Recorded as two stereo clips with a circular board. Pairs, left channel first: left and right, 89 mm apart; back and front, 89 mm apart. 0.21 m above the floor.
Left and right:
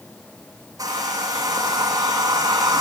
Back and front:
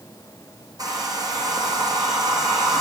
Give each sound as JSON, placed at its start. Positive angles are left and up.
{"t": 0.8, "sound": "a hair dryer", "azimuth_deg": -45, "distance_m": 6.5}